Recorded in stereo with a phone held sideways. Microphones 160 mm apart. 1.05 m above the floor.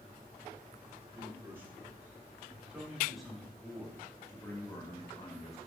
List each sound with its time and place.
1.1 s a man speaking: 15° right (ahead or behind), 4 m; by 5.6 s 45° left (ahead or behind), 1.9 m